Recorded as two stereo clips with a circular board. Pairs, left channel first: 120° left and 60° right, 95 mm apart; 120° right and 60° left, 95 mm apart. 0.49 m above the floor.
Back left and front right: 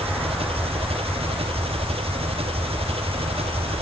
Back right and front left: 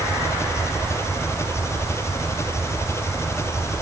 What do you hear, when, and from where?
0.0 s an engine running: 60° right